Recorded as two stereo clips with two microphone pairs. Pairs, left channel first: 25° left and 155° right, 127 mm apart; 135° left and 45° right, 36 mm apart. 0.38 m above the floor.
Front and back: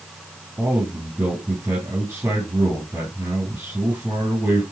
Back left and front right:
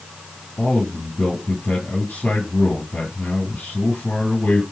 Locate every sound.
0.6 s a man speaking: 140° left, 3 m